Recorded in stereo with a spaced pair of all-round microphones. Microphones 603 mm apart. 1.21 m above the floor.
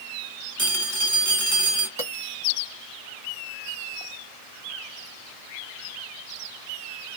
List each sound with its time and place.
0.6 s a phone ringing: 20° right (ahead or behind), 1.5 m
2.0 s a bell: 25° left (ahead or behind), 1.4 m